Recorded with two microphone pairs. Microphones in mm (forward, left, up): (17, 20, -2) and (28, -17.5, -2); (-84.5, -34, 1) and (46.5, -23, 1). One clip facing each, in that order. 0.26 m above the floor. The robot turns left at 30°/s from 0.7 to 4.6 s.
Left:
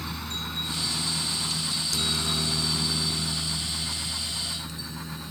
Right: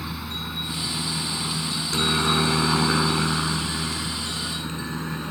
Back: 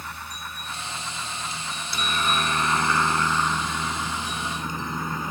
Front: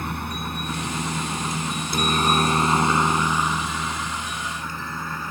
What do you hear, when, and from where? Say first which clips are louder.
0.0 s a helicopter: right 2 dB, front 8 dB; 5° left; by 5.3 s 105° right